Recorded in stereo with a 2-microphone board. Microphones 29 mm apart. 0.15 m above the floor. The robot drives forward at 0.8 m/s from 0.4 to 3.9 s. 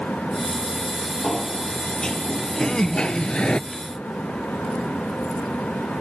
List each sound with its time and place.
1.2 s a sliding door: 20° left (ahead or behind); by 3.6 s 35° left (ahead or behind)
2.6 s laughter: 25° left (ahead or behind); by 3.9 s 20° left (ahead or behind)